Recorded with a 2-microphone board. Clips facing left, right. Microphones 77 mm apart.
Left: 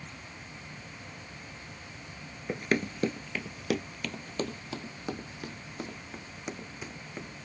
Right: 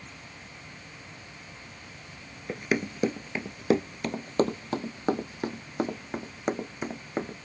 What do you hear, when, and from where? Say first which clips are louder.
2.5 s running footsteps: right 1 dB; centre (ahead or behind); by 7.3 s 45° right (ahead or behind)